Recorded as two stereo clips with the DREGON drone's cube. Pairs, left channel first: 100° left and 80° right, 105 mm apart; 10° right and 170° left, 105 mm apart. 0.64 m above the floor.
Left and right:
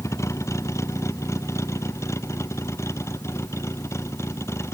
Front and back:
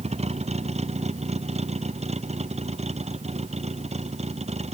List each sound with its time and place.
0.0 s a vehicle: 165° left